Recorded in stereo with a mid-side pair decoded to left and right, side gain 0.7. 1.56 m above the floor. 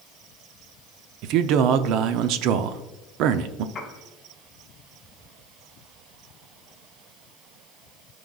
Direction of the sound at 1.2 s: 60° right.